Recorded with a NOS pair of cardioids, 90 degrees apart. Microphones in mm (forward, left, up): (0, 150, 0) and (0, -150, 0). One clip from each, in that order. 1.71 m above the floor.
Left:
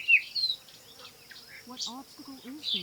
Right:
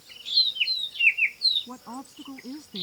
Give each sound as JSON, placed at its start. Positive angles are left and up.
{"t": 1.7, "sound": "a woman speaking", "azimuth_deg": -40}